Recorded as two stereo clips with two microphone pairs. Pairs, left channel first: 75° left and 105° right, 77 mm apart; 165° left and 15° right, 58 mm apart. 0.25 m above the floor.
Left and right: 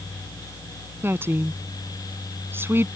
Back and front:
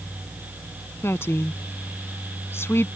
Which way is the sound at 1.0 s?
160° right.